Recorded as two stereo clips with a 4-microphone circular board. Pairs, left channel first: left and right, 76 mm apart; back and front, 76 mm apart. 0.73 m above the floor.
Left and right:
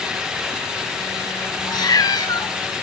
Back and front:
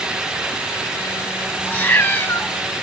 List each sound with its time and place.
1.7 s a cat meowing: 115° left, 1.3 m